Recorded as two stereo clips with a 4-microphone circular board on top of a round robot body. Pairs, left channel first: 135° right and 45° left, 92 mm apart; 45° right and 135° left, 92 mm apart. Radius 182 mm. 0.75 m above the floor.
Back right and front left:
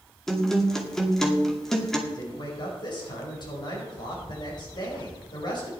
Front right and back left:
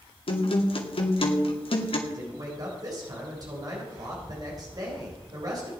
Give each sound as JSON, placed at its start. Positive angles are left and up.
{"t": 0.3, "sound": "a guitar", "azimuth_deg": -50, "distance_m": 2.5}
{"t": 2.1, "sound": "a man speaking", "azimuth_deg": -175, "distance_m": 4.5}